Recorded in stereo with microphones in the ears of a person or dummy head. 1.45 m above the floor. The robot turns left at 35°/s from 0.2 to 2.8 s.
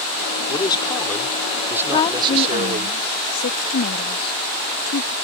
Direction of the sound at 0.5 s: 30° left.